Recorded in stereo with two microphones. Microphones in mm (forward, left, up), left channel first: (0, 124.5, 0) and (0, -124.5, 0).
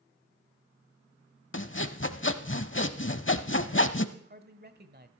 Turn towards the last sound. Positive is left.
turn(degrees=-40)  # may be behind; listen again after turning